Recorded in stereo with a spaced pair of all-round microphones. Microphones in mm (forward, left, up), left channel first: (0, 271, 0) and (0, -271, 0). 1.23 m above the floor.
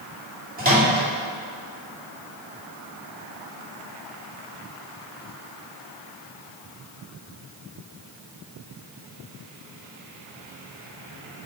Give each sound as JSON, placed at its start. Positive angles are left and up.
{"t": 0.6, "sound": "a microwave", "side_deg": -15, "distance_m": 2.0}